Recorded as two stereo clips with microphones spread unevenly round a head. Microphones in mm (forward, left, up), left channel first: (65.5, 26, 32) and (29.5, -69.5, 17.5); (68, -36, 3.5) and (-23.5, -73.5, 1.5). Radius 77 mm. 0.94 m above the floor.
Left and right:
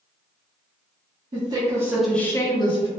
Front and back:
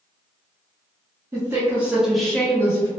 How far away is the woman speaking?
About 1.1 m.